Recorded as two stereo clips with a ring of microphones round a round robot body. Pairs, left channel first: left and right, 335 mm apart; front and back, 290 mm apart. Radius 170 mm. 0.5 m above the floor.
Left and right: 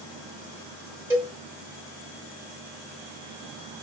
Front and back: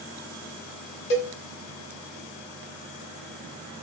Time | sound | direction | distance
1.1 | a cowbell | 5° right | 0.9 m